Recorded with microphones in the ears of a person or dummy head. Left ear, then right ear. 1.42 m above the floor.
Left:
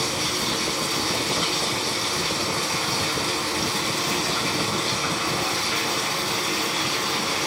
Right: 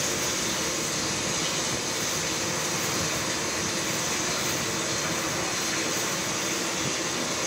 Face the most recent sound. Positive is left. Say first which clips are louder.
# left 3 dB
turn(degrees=75)  # may be behind; listen again after turning